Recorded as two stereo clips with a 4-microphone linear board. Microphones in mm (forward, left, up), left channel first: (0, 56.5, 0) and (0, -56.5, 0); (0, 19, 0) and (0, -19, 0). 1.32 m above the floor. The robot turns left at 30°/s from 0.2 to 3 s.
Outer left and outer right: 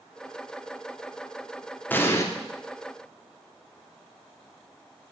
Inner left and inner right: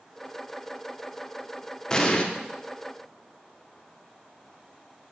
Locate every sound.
1.9 s an explosion: 15° left (ahead or behind), 1.0 m; by 2.2 s 25° left (ahead or behind), 1.0 m